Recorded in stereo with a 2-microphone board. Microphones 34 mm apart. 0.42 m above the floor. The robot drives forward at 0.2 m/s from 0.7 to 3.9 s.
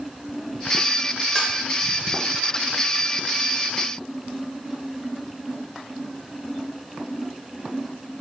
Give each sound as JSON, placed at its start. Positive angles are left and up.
{"t": 1.4, "sound": "dishes clattering", "side_deg": 15, "distance_m": 1.2}